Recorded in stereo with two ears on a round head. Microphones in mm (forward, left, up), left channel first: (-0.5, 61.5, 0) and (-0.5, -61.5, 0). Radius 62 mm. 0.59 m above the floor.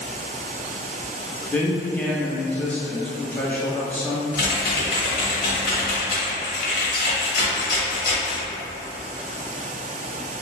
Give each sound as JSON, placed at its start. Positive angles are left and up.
{"t": 1.5, "sound": "a man speaking", "side_deg": 10, "distance_m": 0.6}
{"t": 4.3, "sound": "typing on a keyboard", "side_deg": 75, "distance_m": 1.0}